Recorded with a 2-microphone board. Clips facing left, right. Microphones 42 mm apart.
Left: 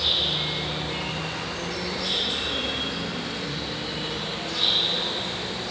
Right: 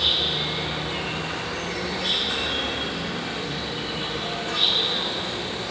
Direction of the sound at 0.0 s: 50° right (ahead or behind).